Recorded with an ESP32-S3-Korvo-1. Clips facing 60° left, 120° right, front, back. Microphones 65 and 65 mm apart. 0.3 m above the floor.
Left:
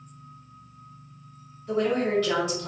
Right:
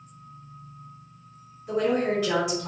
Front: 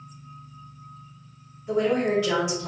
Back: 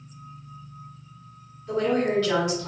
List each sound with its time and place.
1.7 s a woman speaking: 55° right, 1.6 m